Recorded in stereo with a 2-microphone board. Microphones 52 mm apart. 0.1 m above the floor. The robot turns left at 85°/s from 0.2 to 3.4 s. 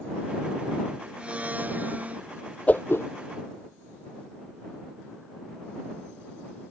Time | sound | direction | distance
1.2 | a blender | 40° right | ?
2.7 | a whoosh | 30° left (ahead or behind) | ?